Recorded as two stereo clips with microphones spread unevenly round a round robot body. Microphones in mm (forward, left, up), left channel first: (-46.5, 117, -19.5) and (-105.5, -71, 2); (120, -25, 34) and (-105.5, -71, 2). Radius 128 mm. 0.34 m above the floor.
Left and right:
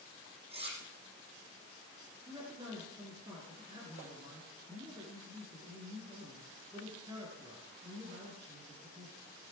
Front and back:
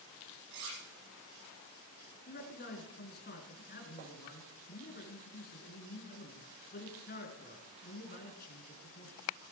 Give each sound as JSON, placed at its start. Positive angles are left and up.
{"t": 0.5, "sound": "cutlery clinking", "azimuth_deg": -170, "distance_m": 7.5}
{"t": 2.3, "sound": "a man speaking", "azimuth_deg": -35, "distance_m": 3.5}